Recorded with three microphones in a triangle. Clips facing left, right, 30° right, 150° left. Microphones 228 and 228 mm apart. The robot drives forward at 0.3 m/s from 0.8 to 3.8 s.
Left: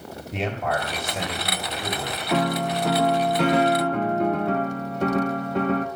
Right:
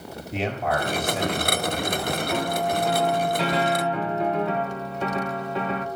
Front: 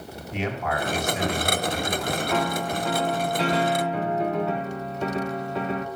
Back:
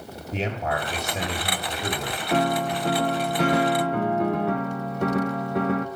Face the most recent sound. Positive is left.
turn(degrees=125)